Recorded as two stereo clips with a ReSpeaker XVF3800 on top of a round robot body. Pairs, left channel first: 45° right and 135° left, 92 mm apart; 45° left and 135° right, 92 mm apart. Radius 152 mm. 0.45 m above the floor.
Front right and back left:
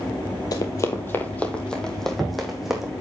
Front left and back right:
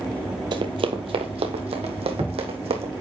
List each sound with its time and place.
0.5 s running footsteps: 95° right, 1.1 m; by 2.9 s 140° right, 2.5 m